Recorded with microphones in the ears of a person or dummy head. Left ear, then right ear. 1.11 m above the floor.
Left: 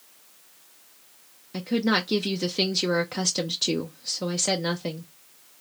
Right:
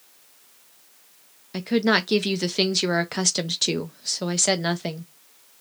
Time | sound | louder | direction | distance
1.5 | a woman speaking | right 4 dB | 20° right (ahead or behind) | 0.5 m